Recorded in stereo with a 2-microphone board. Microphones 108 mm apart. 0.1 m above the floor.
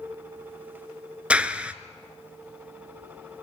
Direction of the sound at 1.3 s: 10° right (ahead or behind).